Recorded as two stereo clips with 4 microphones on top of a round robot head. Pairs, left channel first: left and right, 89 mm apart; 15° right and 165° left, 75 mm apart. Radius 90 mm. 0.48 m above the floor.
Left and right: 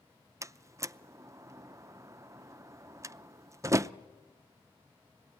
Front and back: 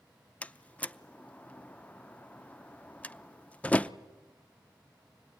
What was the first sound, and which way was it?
A door slam, 70° right.